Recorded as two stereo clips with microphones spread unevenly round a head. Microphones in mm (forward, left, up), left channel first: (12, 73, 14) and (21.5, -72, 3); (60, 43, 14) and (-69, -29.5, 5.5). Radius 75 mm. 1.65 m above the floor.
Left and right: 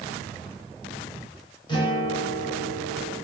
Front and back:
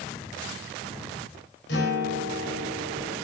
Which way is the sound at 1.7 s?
35° left.